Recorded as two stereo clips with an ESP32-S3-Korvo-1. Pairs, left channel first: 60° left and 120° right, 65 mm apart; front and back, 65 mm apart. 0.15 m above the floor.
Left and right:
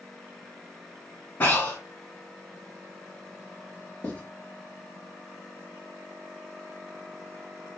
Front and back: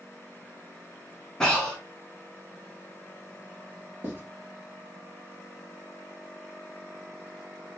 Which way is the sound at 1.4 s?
70° left.